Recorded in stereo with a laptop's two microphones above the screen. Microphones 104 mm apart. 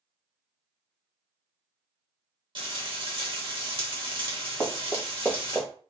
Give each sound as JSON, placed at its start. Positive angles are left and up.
{"t": 2.5, "sound": "frying", "side_deg": -55, "distance_m": 1.1}
{"t": 4.6, "sound": "running footsteps", "side_deg": 5, "distance_m": 1.7}